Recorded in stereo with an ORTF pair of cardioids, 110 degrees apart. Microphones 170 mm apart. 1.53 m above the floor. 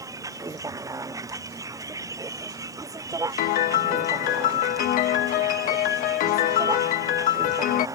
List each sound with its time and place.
0.0 s a vehicle: 20° right
3.4 s a piano: 65° left